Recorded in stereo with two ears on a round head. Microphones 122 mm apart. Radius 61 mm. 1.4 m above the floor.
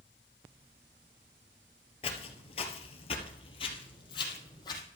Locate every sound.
2.0 s footsteps: 45° left (ahead or behind), 1.9 m; by 4.8 s 30° left (ahead or behind), 3 m